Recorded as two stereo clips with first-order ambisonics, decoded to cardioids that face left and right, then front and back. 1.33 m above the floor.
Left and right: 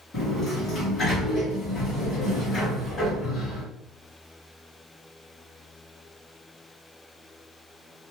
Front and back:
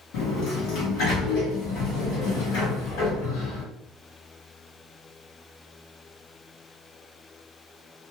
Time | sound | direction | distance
0.1 | a sliding door | 20° left | 1.3 m